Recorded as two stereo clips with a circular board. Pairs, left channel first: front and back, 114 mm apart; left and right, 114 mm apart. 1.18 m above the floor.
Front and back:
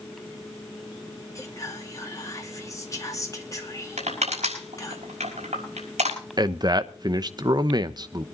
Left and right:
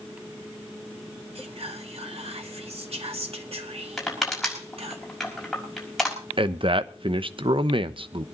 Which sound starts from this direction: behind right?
A man speaking, at 6.4 s.